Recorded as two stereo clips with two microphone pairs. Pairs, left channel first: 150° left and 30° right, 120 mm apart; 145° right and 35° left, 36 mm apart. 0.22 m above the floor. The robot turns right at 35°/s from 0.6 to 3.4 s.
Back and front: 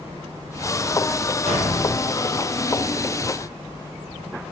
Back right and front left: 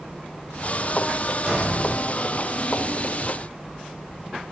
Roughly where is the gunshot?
Ahead right.